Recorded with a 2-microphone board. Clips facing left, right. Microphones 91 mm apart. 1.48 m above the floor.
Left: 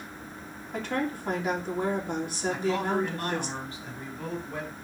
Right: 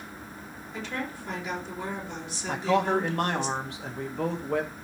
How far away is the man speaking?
About 2 m.